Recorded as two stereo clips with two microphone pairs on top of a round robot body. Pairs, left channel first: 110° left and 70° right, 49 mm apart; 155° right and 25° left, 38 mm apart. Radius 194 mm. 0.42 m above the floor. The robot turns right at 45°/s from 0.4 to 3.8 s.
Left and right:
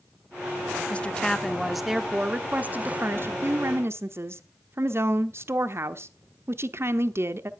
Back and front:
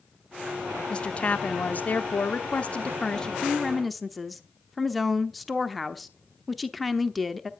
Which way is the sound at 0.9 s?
160° left.